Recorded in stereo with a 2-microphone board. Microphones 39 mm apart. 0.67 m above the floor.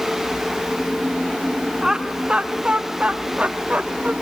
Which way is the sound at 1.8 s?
10° right (ahead or behind).